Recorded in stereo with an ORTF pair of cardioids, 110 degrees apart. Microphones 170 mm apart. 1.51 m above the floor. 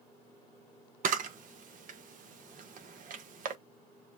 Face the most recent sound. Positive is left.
turn(degrees=-50)